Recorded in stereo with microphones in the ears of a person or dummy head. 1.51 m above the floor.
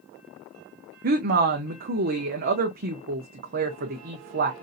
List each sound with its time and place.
1.0 s a woman speaking: 45° right (ahead or behind), 0.6 m